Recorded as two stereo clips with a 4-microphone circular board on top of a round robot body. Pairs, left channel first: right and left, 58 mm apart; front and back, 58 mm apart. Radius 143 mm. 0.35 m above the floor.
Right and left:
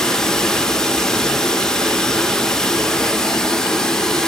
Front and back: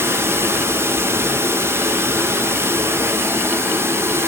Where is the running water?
165° right, 1.4 m.